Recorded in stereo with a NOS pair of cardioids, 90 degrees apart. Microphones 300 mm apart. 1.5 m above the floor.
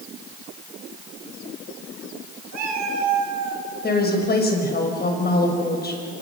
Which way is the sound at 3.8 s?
30° left.